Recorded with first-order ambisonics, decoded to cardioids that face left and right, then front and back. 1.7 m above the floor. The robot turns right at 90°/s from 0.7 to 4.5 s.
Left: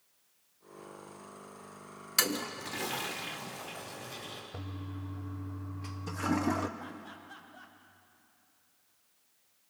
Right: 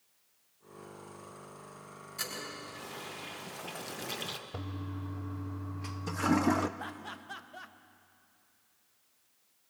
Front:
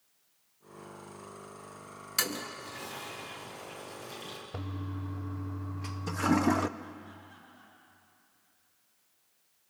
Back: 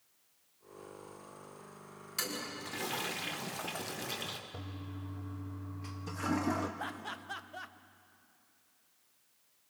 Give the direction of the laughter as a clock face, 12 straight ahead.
5 o'clock.